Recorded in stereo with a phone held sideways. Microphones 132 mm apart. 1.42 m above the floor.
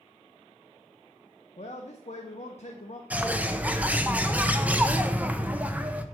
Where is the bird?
10° right (ahead or behind), 0.6 m.